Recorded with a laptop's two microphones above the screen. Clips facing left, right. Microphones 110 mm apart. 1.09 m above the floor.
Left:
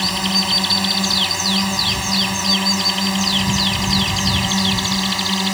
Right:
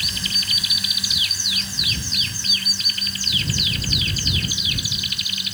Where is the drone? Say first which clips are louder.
Left 13 dB; 70° left (ahead or behind); by 5.5 s 80° left.